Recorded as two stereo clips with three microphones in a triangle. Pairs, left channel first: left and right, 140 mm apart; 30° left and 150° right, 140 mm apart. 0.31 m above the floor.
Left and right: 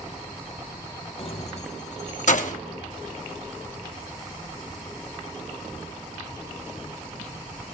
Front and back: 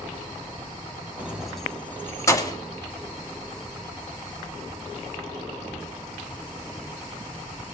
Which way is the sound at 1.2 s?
135° left.